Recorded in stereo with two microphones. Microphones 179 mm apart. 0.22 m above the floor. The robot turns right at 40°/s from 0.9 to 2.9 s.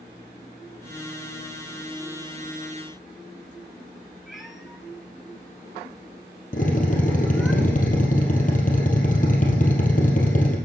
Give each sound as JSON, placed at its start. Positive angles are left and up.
{"t": 4.3, "sound": "a cat meowing", "side_deg": 0, "distance_m": 1.2}
{"t": 6.5, "sound": "a drill", "side_deg": 50, "distance_m": 2.5}